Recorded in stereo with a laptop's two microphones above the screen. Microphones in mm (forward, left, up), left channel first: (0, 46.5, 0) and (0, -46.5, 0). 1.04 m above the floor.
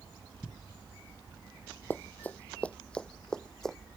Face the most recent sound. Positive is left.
turn(degrees=5)  # may be behind; listen again after turning